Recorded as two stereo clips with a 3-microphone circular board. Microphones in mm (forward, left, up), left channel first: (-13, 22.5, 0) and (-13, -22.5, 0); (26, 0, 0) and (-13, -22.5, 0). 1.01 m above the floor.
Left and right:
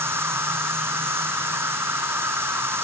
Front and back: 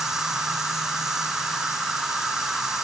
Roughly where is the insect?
Right.